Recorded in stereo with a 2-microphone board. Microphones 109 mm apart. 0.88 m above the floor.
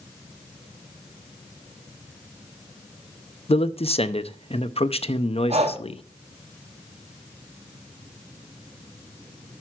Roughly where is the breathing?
Right.